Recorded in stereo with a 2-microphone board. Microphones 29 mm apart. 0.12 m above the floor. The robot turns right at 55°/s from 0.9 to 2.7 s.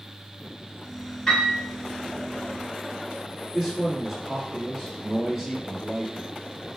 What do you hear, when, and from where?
1.3 s a piano: 20° left (ahead or behind), 1.2 m; by 1.6 s 15° left (ahead or behind), 1.2 m
3.5 s a man speaking: 10° right (ahead or behind), 1.4 m